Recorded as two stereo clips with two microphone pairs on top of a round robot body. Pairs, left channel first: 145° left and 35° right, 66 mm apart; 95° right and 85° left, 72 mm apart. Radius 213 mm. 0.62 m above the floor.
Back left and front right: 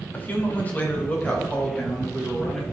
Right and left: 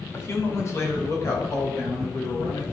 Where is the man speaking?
150° right, 2.5 m; by 2.6 s 140° right, 4.5 m.